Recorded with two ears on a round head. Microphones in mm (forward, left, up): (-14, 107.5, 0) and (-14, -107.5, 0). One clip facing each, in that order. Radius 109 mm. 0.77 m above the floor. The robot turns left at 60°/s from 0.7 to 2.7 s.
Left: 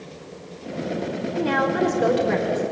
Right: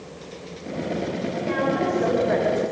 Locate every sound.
1.4 s a woman speaking: 100° left, 3.5 m; by 2.6 s 25° left, 3.5 m